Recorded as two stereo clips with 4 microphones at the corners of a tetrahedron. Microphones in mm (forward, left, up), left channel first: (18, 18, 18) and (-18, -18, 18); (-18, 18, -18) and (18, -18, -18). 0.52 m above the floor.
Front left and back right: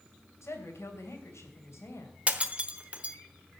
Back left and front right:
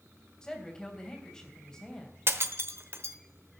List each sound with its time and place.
0.4 s a woman speaking: 60° left, 3 m
2.3 s breaking glass: 70° right, 1.0 m